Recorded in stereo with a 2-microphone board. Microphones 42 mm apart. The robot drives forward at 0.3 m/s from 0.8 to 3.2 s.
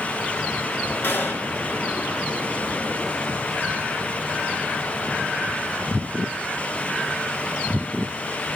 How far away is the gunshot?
About 1.8 m.